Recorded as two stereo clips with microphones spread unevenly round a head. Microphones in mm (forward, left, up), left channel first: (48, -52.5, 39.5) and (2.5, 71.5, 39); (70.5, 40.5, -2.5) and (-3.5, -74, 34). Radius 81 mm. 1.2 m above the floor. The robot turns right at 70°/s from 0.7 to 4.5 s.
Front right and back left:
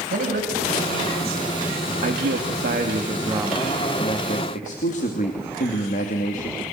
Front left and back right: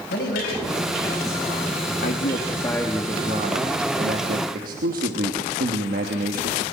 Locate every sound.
0.1 s a man speaking: 90° left, 7 m; by 1.7 s 155° left, 7 m
2.0 s a man speaking: 85° left, 3 m; by 6.6 s 100° right, 3 m